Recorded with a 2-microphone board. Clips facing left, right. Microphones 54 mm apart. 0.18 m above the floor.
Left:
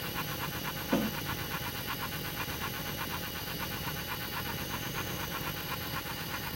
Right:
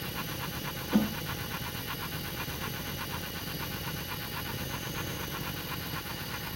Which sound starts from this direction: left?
A snare drum, at 0.9 s.